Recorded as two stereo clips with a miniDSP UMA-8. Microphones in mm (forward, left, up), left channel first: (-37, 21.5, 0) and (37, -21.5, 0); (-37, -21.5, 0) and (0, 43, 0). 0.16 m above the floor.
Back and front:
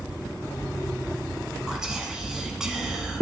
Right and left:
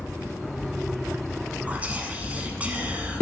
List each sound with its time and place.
1.7 s whispering: 40° left, 1.1 m